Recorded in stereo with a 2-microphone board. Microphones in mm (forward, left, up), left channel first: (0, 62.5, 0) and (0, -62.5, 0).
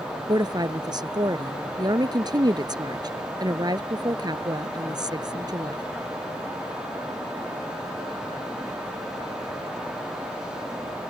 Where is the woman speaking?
35° right (ahead or behind).